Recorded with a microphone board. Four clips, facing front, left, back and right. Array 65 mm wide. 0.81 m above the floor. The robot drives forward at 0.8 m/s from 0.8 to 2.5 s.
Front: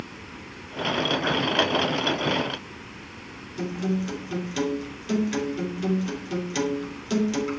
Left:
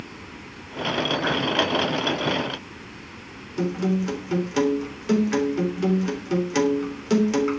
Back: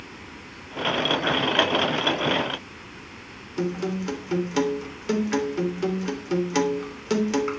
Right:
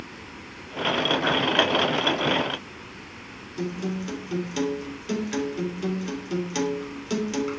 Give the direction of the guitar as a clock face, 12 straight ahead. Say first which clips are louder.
Left 6 dB, back 1 dB; 7 o'clock.